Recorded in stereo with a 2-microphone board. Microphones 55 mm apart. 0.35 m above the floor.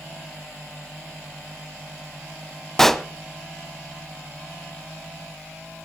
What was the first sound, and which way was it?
A pop, 10° left (ahead or behind).